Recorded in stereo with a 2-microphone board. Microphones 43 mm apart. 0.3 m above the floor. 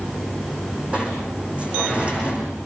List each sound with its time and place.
0.9 s a sliding door: 30° right (ahead or behind), 8 m